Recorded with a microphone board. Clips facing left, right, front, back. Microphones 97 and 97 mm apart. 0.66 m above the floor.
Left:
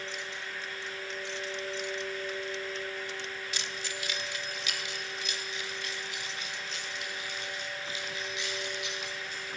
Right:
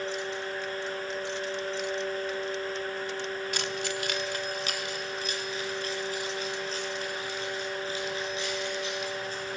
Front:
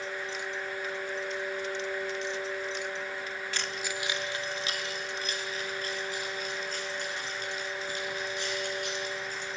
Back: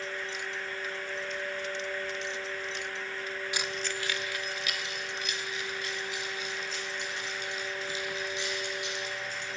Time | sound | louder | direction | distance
3.5 | keys jangling | right 7 dB, even | 110° right | 0.8 m